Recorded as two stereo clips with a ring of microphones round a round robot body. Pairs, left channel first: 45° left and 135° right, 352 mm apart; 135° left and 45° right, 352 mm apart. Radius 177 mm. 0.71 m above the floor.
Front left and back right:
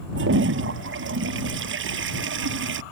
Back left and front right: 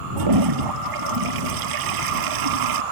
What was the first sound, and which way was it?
A toilet flushing, 75° right.